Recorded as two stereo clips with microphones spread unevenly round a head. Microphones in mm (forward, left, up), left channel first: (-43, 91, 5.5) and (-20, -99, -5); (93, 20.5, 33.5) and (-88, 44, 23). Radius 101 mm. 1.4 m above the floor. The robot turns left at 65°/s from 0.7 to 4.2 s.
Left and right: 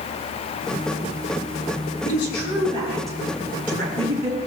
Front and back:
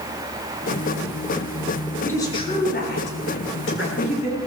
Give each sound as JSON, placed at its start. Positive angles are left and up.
{"t": 2.0, "sound": "a woman speaking", "azimuth_deg": 75, "distance_m": 7.5}